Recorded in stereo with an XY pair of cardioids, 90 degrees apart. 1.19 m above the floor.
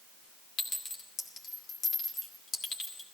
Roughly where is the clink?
Ahead left.